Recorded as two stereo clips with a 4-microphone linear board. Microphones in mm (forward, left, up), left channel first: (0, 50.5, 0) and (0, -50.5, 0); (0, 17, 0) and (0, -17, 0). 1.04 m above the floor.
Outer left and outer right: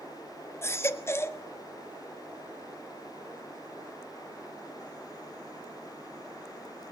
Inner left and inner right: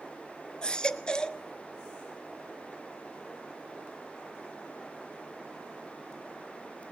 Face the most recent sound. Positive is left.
turn(degrees=25)  # may be behind; listen again after turning